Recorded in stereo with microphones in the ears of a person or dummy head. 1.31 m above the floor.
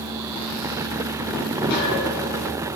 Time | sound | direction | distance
1.7 | a gunshot | 60° left (ahead or behind) | 5.5 m